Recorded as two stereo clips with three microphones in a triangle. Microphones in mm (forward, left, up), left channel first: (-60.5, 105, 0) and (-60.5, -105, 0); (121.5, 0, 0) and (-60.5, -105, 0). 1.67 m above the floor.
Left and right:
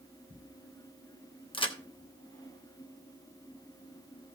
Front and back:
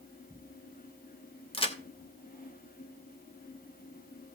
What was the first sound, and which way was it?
A crack, 55° left.